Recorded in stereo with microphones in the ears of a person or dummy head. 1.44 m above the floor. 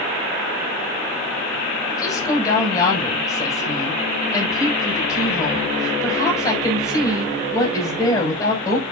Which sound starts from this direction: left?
A woman speaking, at 1.9 s.